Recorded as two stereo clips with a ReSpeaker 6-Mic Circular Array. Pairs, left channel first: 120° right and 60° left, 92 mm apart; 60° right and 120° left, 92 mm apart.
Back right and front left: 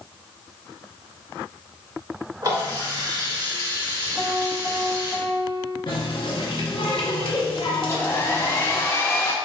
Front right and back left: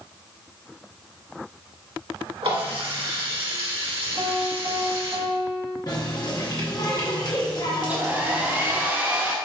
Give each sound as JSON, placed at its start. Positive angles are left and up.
{"t": 2.4, "sound": "a running tap", "azimuth_deg": 110, "distance_m": 1.7}
{"t": 4.2, "sound": "a piano", "azimuth_deg": 160, "distance_m": 1.0}
{"t": 5.9, "sound": "a running tap", "azimuth_deg": -100, "distance_m": 0.9}
{"t": 7.8, "sound": "a hair dryer", "azimuth_deg": -175, "distance_m": 0.6}